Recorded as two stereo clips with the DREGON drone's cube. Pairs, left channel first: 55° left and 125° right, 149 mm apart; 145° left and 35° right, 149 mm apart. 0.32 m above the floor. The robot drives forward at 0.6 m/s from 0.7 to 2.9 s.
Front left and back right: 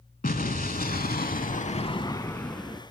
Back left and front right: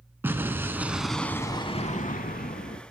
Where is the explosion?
40° left, 0.8 m; by 2.8 s 145° left, 0.9 m.